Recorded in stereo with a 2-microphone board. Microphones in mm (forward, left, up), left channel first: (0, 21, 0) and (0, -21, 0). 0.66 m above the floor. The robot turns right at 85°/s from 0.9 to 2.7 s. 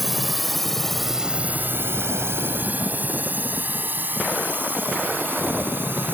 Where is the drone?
5° right (ahead or behind); by 6.2 s 55° right (ahead or behind).